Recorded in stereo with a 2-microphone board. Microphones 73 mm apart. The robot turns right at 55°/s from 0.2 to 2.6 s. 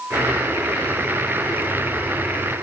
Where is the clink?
I don't hear a clink.